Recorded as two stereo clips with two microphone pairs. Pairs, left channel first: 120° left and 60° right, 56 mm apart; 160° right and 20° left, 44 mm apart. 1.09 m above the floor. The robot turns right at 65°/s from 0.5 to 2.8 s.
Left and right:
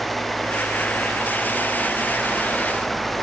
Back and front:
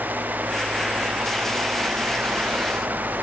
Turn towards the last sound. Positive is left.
No sound to turn to.